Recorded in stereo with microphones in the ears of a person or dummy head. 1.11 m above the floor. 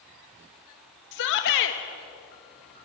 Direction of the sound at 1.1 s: 60° left (ahead or behind).